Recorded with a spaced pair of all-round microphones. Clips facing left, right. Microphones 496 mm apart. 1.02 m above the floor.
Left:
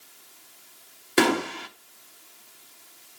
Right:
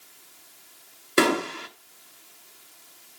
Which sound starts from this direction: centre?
A gunshot, at 1.2 s.